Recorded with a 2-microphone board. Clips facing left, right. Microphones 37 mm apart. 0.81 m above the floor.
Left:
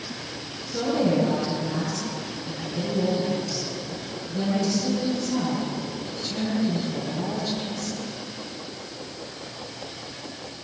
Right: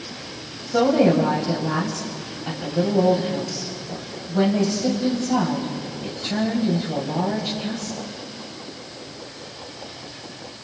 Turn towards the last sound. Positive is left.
turn(degrees=-80)